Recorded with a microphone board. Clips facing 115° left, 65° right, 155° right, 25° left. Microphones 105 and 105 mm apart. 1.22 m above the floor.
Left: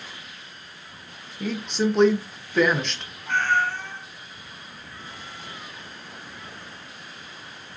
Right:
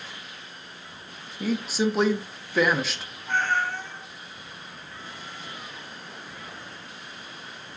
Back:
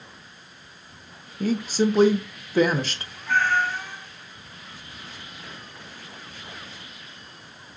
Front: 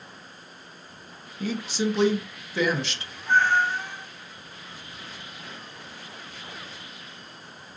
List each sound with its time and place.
1.4 s a woman speaking: 150° right, 0.6 m
3.3 s a cat meowing: 90° left, 1.0 m